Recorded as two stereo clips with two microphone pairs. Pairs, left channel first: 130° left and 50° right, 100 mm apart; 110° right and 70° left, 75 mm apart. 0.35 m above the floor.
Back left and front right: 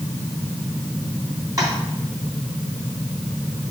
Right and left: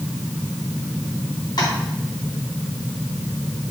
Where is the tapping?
105° right, 3 m.